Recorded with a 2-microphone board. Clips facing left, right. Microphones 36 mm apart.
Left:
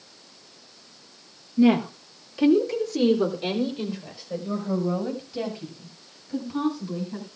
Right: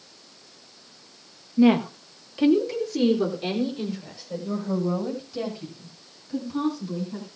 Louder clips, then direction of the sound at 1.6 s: Right 1 dB; 30° right (ahead or behind).